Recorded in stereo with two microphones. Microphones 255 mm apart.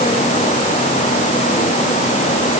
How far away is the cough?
I don't hear a cough.